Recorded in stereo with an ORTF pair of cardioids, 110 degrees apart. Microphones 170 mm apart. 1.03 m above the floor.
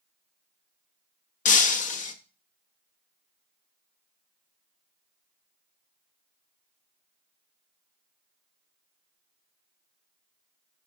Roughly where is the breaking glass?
Ahead left.